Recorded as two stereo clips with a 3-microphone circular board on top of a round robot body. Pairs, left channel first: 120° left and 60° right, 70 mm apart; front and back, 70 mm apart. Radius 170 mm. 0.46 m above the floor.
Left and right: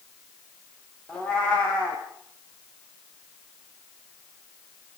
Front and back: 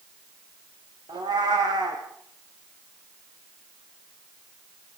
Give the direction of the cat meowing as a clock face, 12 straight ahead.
5 o'clock.